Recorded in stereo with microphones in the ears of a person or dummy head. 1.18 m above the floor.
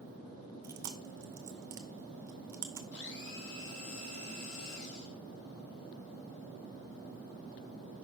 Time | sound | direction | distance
0.6 | chewing | 10° right (ahead or behind) | 0.8 m
2.9 | a blender | 65° left (ahead or behind) | 2.0 m